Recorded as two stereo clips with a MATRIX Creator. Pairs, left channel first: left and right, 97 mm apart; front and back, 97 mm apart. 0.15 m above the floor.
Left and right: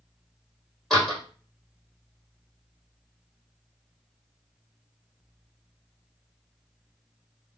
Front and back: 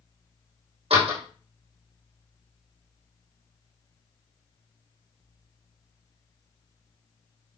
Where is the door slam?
170° left, 5.5 m.